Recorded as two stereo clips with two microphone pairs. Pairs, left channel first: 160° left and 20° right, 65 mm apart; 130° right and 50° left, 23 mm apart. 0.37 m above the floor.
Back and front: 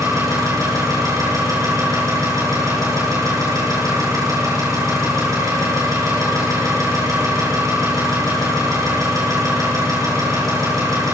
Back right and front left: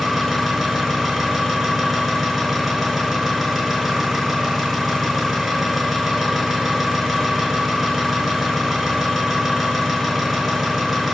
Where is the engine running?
45° right, 4.5 m.